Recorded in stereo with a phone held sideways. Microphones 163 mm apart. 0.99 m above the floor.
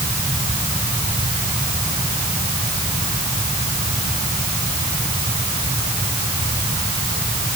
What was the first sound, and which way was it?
Only background noise.